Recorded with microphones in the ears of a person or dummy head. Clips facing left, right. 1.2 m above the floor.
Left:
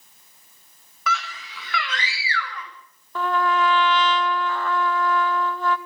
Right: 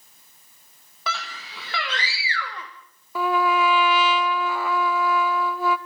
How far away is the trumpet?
About 0.6 m.